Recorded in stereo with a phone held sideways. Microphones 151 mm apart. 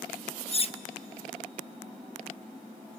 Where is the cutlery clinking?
40° left (ahead or behind), 0.7 m.